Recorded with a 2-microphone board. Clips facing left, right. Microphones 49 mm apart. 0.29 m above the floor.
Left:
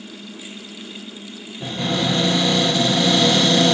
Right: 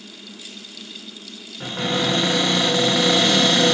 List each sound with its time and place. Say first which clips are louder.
1.6 s a cupboard door: even; 50° right (ahead or behind), 3.5 m